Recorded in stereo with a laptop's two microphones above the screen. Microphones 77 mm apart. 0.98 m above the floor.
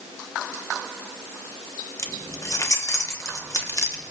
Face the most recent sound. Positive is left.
turn(degrees=45)  # may be behind; listen again after turning